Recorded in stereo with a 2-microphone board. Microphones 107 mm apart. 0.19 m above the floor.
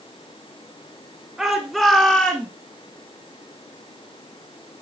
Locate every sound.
1.4 s a shout: 5° right (ahead or behind), 2 m; by 2.5 s 15° left (ahead or behind), 2 m